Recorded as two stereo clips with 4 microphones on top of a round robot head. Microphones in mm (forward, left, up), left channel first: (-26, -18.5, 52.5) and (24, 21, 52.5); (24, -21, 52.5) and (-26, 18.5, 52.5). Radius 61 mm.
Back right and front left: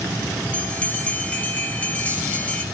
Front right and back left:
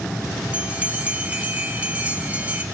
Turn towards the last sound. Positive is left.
turn(degrees=180)